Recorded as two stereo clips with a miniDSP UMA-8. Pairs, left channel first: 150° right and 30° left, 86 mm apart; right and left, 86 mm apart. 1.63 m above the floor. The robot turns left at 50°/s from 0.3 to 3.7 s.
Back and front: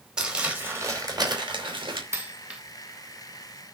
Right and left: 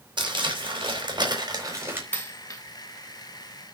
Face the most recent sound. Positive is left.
turn(degrees=-105)